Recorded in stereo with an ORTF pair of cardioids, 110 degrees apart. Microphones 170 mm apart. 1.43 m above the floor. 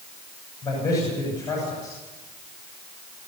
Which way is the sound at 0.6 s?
20° left.